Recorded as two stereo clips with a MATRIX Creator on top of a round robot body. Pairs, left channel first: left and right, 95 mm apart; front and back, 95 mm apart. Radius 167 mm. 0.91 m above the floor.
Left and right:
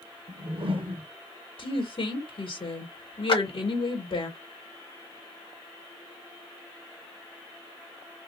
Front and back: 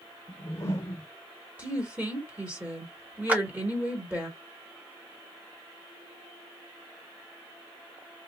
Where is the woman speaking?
110° left, 1.7 m.